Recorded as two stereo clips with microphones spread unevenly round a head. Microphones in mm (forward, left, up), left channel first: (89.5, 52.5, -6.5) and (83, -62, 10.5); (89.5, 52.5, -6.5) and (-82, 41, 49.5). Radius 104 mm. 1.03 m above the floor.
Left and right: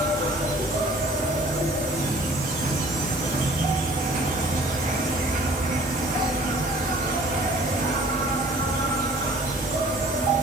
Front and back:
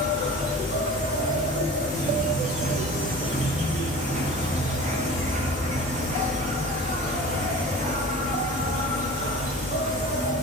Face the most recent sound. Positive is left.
turn(degrees=-115)